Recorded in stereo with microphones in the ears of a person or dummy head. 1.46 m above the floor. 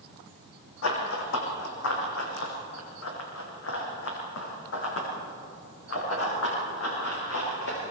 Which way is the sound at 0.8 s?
70° left (ahead or behind).